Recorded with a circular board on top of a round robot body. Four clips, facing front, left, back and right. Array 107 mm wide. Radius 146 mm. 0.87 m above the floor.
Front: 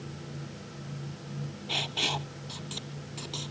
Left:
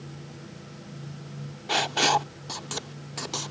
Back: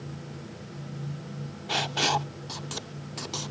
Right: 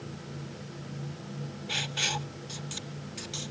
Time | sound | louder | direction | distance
1.7 | writing | left 13 dB, back 8 dB | 115° left | ?